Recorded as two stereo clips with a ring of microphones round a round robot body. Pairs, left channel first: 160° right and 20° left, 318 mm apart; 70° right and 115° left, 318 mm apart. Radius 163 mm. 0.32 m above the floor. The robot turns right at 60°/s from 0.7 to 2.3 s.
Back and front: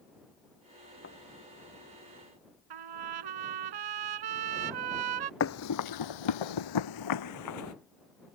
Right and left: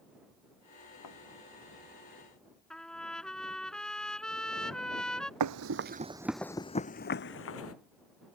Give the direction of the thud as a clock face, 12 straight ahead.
3 o'clock.